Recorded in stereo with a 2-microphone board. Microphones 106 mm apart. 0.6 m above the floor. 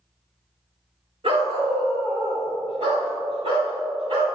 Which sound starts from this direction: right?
A dog barking, at 1.2 s.